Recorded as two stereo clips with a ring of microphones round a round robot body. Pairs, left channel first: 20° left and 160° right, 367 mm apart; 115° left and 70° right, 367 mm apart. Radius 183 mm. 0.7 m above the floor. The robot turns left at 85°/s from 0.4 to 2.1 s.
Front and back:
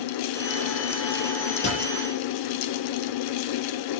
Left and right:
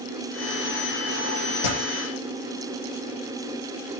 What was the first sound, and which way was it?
A dropped coin, 85° left.